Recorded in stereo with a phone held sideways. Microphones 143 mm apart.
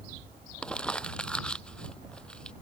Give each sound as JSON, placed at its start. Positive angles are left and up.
{"t": 0.6, "sound": "crumpling", "side_deg": 5}